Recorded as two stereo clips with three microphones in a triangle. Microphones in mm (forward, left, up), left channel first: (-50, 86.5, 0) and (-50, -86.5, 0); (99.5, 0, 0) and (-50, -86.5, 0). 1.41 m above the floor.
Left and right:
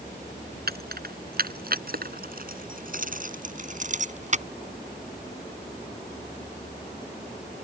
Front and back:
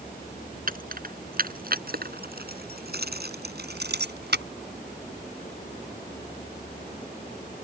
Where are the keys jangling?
115° right; by 4.5 s 140° right.